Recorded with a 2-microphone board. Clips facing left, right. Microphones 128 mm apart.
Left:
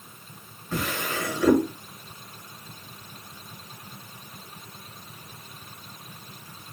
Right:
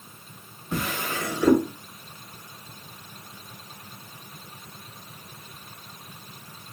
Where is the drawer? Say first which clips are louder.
Even; 20° right (ahead or behind), 2.5 m.